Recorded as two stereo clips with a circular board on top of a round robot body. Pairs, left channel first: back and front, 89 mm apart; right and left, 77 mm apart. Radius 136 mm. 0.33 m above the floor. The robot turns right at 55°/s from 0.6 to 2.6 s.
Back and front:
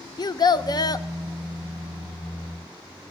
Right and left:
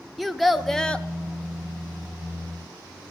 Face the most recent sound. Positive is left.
turn(degrees=-70)